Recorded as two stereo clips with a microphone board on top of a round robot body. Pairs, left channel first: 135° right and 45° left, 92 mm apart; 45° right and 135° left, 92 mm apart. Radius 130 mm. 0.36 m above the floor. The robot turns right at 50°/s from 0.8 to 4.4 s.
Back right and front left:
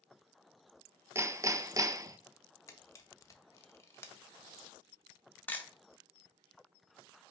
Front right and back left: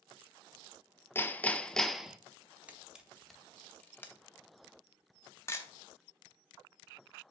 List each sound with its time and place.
1.1 s hammering: 5° left, 0.5 m; by 2.2 s 55° left, 0.5 m
2.7 s a camera shutter: 165° right, 0.9 m; by 5.7 s 80° right, 0.9 m